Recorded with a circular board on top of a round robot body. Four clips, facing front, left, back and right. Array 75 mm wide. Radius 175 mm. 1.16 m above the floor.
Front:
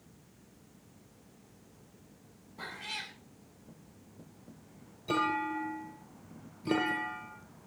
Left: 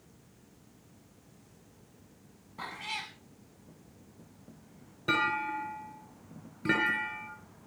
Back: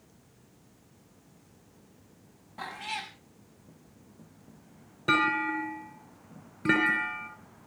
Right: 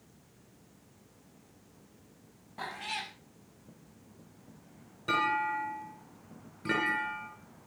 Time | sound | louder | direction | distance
2.6 | a cat meowing | right 1 dB, back 5 dB | 135° right | 4.5 m
5.1 | a clunk | right 1 dB, back 5 dB | 170° left | 7.5 m